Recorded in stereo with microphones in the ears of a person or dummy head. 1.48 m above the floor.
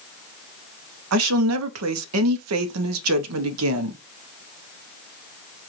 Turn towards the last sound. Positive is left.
turn(degrees=-80)